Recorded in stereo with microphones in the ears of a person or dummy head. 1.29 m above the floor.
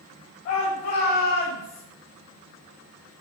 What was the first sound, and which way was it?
A shout, 55° left (ahead or behind).